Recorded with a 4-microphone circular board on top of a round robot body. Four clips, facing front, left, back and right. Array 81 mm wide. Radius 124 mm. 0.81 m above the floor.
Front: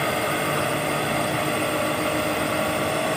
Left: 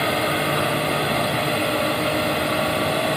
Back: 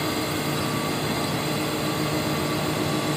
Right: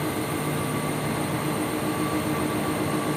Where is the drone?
60° left.